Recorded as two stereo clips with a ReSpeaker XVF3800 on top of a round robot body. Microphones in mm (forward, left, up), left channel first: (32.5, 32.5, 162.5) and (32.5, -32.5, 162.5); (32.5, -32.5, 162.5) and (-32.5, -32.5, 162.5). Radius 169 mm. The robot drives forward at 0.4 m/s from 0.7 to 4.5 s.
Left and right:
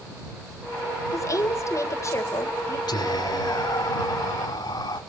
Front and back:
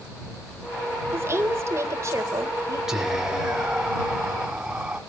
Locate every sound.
1.1 s a woman speaking: 130° left, 3 m; by 2.8 s 135° left, 3.5 m
2.9 s whispering: 95° left, 5.5 m; by 5.0 s 100° left, 5.5 m